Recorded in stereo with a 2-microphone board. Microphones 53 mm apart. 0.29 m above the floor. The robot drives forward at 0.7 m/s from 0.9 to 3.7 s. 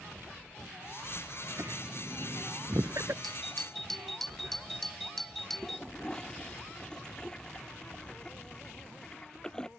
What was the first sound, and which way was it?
Laughter, 70° right (ahead or behind).